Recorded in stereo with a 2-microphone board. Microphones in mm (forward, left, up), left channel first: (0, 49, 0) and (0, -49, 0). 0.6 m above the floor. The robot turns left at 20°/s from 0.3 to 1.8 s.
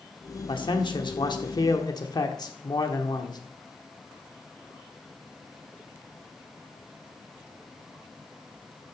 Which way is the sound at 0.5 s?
60° left (ahead or behind).